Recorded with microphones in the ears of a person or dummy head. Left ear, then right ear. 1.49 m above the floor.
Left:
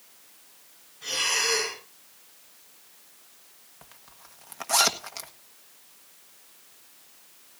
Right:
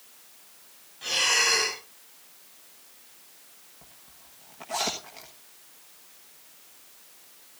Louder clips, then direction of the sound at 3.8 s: Left 6 dB; 50° left (ahead or behind).